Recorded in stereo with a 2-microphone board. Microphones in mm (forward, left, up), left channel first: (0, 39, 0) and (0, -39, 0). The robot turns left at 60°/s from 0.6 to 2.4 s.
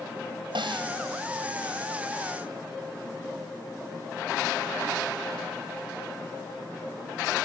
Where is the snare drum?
85° right; by 0.9 s 75° right (ahead or behind).